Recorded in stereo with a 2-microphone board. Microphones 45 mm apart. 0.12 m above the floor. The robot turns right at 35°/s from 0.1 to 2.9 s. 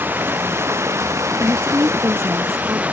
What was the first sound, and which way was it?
Running water, 130° right.